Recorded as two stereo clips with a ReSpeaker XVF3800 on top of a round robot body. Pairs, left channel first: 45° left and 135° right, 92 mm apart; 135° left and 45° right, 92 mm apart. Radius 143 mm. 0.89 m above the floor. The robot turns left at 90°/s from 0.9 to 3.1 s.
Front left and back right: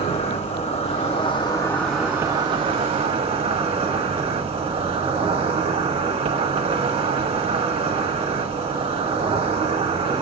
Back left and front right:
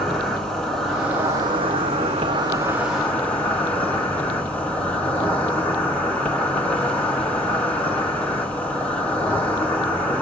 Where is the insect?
50° left, 1.3 m; by 10.2 s 150° right, 1.3 m.